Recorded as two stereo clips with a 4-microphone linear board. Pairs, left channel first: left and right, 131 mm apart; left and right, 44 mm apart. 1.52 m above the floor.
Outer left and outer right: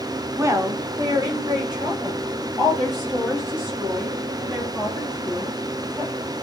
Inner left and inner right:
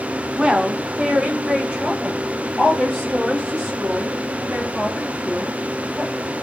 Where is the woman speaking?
20° right (ahead or behind), 0.6 m; by 6.3 s 35° right (ahead or behind), 4 m.